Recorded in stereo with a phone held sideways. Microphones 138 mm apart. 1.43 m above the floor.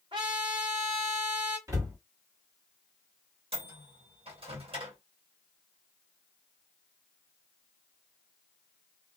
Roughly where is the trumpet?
Right.